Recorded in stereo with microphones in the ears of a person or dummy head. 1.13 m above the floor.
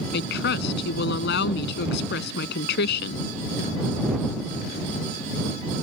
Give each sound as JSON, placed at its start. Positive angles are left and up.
{"t": 0.1, "sound": "a woman speaking", "side_deg": 65}